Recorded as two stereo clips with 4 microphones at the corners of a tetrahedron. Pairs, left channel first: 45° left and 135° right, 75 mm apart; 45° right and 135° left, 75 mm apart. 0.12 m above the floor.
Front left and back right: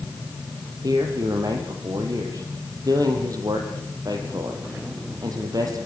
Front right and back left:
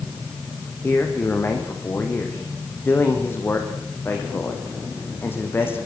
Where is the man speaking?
105° right, 5 m.